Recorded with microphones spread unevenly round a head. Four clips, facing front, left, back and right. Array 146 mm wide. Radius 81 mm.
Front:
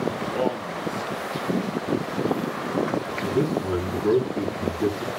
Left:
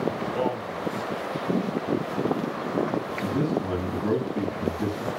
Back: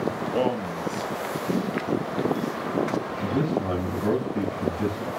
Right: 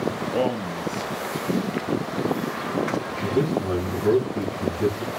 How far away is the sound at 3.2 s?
About 7.5 m.